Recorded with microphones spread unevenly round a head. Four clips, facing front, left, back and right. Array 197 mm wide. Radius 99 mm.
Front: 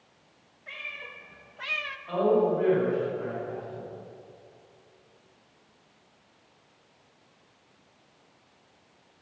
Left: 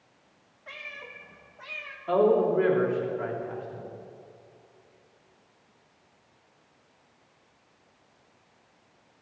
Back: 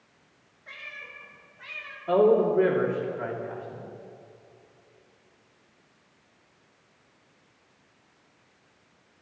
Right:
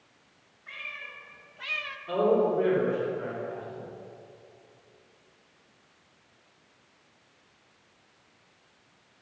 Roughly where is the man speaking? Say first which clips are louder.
Left 2 dB, back 3 dB; behind left.